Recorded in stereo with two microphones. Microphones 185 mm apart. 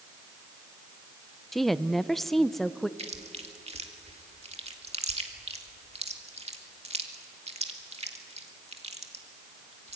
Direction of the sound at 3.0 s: 35° right (ahead or behind).